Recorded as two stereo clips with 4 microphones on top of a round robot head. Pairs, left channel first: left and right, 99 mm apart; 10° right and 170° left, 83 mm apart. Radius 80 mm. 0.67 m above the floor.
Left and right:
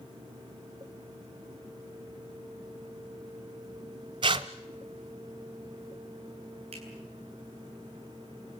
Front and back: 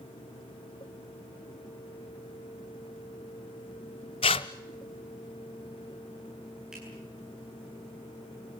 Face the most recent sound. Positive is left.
turn(degrees=-105)